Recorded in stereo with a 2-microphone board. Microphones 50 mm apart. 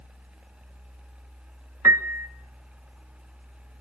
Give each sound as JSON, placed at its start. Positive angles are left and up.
{"t": 1.8, "sound": "a piano", "side_deg": -60, "distance_m": 1.1}